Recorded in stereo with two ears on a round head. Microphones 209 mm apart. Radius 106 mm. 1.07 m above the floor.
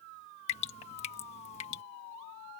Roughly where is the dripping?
Left.